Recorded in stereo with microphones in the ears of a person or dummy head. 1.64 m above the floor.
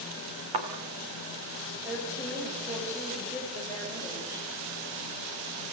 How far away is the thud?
About 2.0 m.